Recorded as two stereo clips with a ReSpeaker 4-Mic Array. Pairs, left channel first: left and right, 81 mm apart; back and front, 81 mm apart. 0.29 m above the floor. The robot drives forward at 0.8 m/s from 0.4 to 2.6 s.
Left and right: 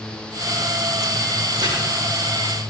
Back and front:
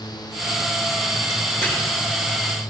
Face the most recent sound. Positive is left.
turn(degrees=-120)